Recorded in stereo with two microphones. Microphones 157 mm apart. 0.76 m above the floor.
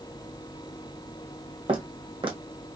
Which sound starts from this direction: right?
Footsteps, at 1.7 s.